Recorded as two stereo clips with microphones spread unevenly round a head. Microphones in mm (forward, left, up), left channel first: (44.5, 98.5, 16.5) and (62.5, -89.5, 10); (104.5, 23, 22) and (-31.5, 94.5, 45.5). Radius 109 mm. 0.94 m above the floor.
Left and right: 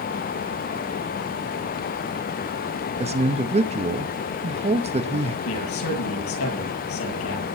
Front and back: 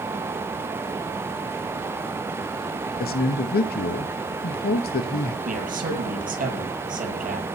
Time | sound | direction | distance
3.0 | a man speaking | 30° right | 1.0 m
5.5 | a man speaking | 120° left | 8.5 m